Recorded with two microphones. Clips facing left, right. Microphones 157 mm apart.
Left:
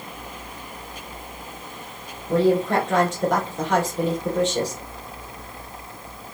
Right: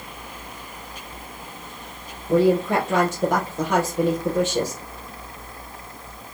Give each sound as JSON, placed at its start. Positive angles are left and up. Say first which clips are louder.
{"t": 2.3, "sound": "a woman speaking", "louder": "right 1 dB", "side_deg": -5, "distance_m": 3.0}